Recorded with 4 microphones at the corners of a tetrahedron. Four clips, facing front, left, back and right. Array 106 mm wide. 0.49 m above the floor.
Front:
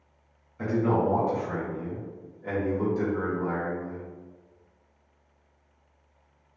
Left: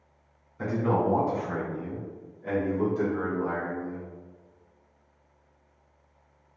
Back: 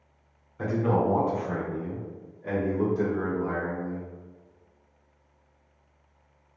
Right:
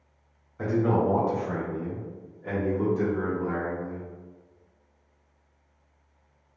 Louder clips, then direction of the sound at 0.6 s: Right 2 dB, even; 105° right.